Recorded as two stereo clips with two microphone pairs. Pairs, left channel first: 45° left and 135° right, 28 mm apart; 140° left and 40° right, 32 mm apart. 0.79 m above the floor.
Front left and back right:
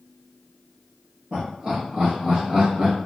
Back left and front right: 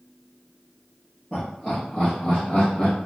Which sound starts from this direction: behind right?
Laughter, at 1.3 s.